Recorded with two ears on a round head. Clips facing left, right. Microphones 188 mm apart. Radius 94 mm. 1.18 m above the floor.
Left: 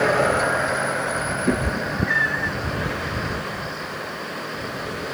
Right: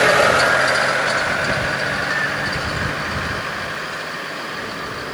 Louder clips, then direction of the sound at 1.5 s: Left 1 dB; 50° left (ahead or behind).